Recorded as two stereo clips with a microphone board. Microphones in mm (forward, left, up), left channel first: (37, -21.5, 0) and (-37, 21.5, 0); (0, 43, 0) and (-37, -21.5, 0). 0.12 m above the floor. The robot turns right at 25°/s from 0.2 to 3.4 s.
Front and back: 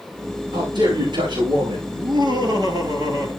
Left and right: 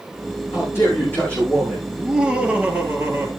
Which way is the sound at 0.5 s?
110° left.